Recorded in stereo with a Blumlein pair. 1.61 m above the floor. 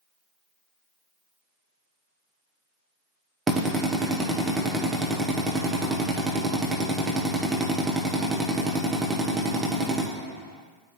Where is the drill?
15° right, 1.0 m.